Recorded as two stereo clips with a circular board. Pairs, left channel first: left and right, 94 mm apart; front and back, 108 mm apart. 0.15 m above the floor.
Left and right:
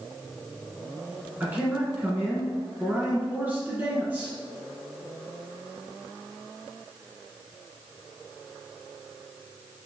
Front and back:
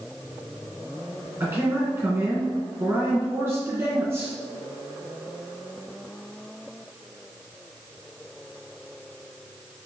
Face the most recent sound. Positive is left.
turn(degrees=-140)